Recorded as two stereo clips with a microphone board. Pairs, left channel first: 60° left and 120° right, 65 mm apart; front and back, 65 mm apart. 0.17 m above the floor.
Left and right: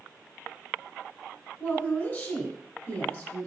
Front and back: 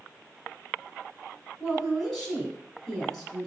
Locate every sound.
1.6 s a woman speaking: 80° left, 1.3 m